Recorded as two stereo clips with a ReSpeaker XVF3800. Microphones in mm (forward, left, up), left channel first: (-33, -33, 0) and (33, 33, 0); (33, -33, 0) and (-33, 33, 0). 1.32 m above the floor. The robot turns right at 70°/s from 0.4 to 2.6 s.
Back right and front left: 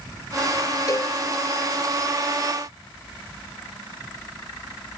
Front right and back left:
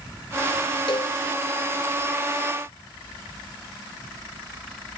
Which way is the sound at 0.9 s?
85° right.